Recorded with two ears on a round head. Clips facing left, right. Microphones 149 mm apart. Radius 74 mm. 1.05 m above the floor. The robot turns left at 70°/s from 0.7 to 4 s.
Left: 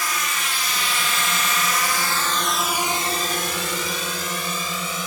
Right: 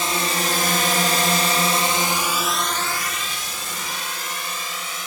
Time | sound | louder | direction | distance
0.0 | a drone | right 5 dB | 25° right (ahead or behind) | ?